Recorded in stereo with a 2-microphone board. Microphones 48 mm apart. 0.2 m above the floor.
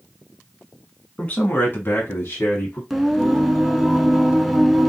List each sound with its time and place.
1.2 s a man speaking: 25° left (ahead or behind), 1.8 m; by 2.8 s 35° left (ahead or behind), 1.8 m
2.9 s singing: centre (ahead or behind), 0.8 m